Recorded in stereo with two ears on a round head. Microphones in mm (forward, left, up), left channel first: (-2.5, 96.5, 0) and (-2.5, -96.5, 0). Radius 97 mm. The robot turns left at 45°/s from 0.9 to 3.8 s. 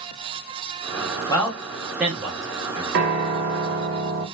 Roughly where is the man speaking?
Centre.